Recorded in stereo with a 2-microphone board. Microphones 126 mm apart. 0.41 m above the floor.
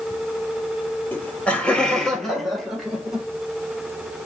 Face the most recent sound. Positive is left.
turn(degrees=-5)  # may be behind; listen again after turning